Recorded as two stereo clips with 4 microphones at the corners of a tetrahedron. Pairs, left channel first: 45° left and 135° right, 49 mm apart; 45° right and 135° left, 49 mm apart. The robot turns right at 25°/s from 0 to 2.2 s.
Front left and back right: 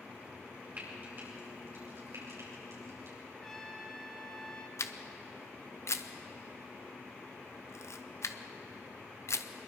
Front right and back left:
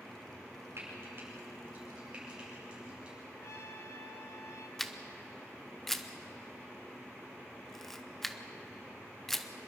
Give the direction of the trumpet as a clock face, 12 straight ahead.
1 o'clock.